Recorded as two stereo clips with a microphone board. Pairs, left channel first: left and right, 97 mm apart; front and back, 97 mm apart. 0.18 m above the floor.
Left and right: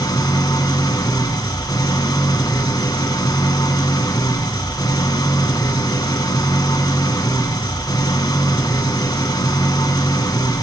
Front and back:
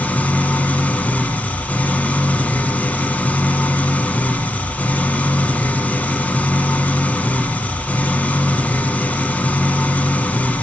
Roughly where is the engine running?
Left.